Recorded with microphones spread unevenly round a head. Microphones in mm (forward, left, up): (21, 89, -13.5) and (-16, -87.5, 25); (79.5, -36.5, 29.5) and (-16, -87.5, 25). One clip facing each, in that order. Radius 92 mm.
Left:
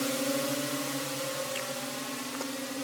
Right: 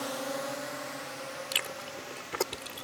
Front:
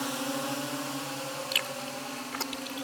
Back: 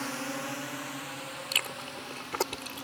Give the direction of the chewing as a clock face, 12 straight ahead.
4 o'clock.